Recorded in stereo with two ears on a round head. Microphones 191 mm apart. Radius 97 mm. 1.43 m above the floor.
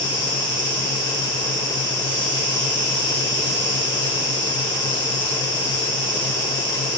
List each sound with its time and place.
0.0 s an insect: 60° right (ahead or behind), 1.6 m